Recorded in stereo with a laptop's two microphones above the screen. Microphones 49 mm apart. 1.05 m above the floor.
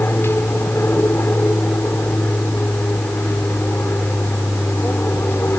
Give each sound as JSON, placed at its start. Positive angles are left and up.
{"t": 0.0, "sound": "an aircraft", "side_deg": 55}